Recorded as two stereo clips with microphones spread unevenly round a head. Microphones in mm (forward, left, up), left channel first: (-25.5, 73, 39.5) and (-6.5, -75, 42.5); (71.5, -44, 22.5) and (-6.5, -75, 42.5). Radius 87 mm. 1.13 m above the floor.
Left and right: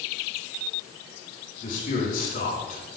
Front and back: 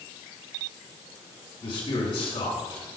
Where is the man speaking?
60° left, 6.5 m.